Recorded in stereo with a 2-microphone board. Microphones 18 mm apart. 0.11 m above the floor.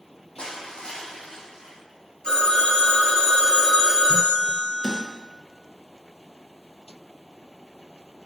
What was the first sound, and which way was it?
Crushing, 55° left (ahead or behind).